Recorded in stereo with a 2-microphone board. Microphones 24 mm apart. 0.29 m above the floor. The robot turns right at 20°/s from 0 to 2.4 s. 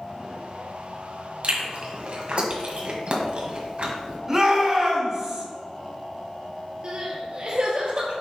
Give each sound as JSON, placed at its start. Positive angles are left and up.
{"t": 1.4, "sound": "chewing", "side_deg": -55, "distance_m": 1.4}
{"t": 4.3, "sound": "a shout", "side_deg": -20, "distance_m": 2.5}
{"t": 6.8, "sound": "crying", "side_deg": -45, "distance_m": 1.6}